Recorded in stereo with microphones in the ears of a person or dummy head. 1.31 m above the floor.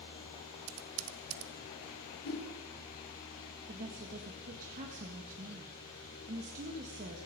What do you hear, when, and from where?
0.7 s typing on a keyboard: 75° right (ahead or behind), 1.0 m
2.2 s a whoosh: 75° left (ahead or behind), 4.5 m
3.7 s a woman speaking: 45° right (ahead or behind), 1.7 m